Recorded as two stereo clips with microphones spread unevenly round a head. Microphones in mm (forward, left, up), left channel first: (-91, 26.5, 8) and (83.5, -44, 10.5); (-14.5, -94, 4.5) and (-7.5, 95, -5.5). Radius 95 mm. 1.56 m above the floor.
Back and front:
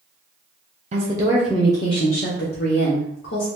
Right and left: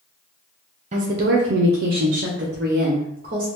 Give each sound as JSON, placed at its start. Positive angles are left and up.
{"t": 0.9, "sound": "a woman speaking", "azimuth_deg": 35, "distance_m": 0.6}